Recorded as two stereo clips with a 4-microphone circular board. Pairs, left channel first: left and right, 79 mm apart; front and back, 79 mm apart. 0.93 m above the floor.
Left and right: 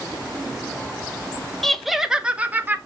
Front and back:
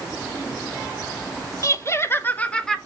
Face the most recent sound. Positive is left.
turn(degrees=-70)